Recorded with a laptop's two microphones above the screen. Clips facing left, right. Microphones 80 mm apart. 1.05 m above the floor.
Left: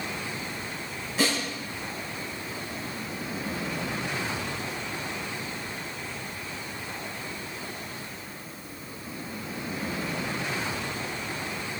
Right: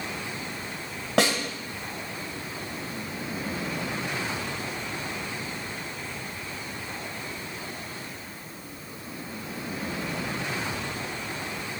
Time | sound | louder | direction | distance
1.2 | a snare drum | right 4 dB | 75° right (ahead or behind) | 3 m